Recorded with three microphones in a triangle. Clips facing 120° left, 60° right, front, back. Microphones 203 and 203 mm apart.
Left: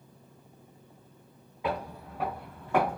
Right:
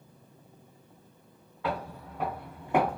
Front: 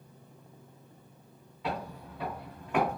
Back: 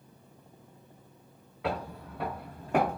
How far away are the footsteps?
About 1.2 m.